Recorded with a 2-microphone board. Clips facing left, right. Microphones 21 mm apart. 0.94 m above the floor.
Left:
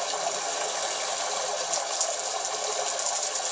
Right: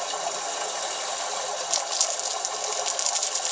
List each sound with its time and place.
0.0 s running water: 10° left (ahead or behind), 1.0 m
1.7 s crumpling: 35° right (ahead or behind), 0.6 m